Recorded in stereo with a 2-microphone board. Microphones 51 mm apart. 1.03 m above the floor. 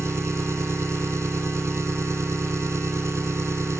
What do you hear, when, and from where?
0.0 s an engine running: 70° right (ahead or behind)